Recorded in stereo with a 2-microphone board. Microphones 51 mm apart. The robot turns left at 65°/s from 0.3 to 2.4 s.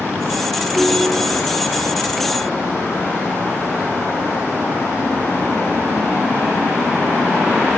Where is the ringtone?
75° left, 3 m; by 1.4 s 30° left, 3 m.